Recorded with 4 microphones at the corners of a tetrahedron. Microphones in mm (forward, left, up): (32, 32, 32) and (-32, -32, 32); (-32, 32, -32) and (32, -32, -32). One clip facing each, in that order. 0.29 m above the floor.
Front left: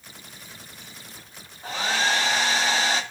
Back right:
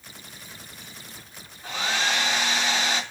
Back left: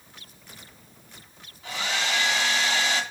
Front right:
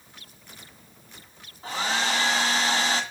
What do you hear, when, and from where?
1.6 s a hair dryer: straight ahead, 2 m